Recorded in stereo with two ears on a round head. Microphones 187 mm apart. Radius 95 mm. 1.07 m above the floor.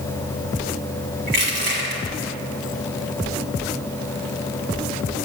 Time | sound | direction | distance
1.3 | crushing | 50° right (ahead or behind) | 1.6 m